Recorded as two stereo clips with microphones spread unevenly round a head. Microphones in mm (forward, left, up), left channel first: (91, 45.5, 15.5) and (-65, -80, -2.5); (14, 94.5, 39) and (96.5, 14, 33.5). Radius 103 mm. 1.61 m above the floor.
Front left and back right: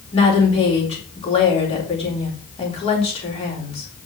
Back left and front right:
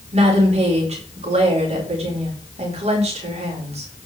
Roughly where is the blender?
I don't hear a blender.